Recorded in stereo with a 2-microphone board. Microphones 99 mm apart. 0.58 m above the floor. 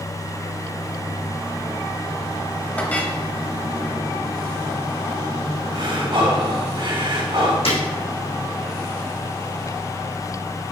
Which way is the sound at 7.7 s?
70° left (ahead or behind).